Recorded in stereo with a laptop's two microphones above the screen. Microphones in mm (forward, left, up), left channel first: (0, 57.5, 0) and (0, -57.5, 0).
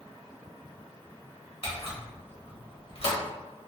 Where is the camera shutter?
55° left (ahead or behind), 0.9 m.